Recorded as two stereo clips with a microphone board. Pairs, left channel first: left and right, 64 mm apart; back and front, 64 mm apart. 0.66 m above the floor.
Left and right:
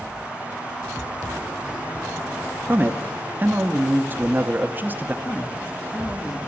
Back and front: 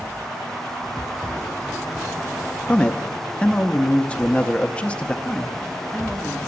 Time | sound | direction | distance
2.7 | a man speaking | 120° right | 0.6 m
5.2 | a man speaking | 90° left | 1.2 m